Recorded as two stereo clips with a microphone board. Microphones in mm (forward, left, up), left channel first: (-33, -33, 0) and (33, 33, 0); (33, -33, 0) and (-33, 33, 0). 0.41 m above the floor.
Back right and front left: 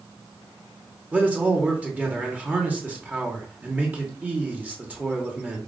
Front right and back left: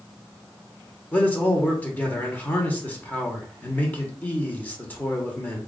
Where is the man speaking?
5° right, 1.0 m.